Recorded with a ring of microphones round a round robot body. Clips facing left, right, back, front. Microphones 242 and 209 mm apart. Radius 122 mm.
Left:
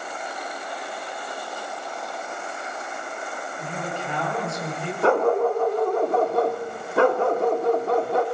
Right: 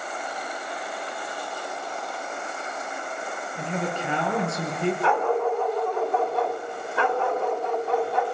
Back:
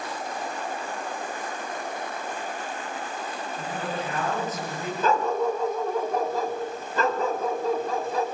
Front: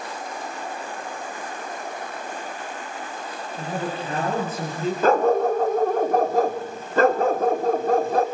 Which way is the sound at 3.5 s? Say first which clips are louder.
Right 4 dB, front 4 dB; 65° right.